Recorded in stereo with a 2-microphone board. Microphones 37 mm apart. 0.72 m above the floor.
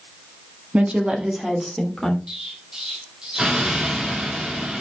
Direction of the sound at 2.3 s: 20° right (ahead or behind).